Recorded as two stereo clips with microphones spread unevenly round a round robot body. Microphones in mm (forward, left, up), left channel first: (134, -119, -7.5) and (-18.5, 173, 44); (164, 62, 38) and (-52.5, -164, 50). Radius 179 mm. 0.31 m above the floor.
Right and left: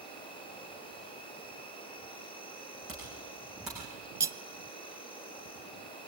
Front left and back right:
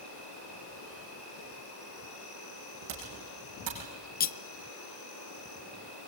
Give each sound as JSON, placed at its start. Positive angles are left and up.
{"t": 0.0, "sound": "an insect", "azimuth_deg": 15, "distance_m": 8.0}
{"t": 2.9, "sound": "typing on a keyboard", "azimuth_deg": -155, "distance_m": 6.0}
{"t": 4.2, "sound": "cutlery clinking", "azimuth_deg": 30, "distance_m": 0.6}